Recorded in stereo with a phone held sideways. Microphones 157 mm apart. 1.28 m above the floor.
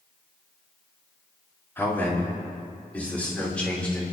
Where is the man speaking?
15° left (ahead or behind), 3.5 m; by 4.0 s 5° left (ahead or behind), 5 m.